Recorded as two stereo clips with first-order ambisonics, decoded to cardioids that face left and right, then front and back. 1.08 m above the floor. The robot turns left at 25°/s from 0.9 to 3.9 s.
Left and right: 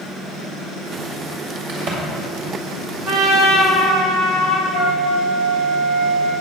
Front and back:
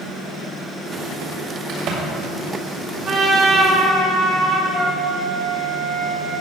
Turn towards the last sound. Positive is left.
turn(degrees=-150)